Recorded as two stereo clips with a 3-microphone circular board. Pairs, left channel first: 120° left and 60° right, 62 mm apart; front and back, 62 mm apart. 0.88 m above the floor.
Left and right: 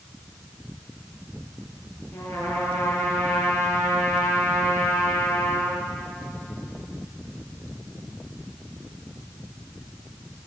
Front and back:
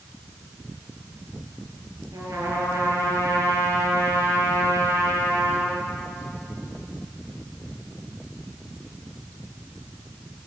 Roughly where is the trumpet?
Behind left.